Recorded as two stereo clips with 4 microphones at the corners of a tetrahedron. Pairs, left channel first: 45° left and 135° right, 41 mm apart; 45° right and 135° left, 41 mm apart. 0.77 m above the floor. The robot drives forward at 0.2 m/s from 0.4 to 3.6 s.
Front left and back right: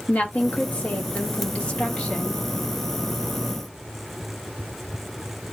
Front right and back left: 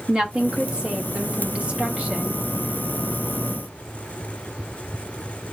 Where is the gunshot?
I don't hear a gunshot.